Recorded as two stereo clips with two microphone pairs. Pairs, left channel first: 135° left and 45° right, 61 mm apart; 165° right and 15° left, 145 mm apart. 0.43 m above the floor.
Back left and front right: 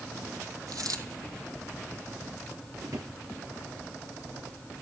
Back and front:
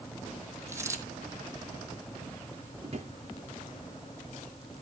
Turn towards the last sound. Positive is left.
turn(degrees=-30)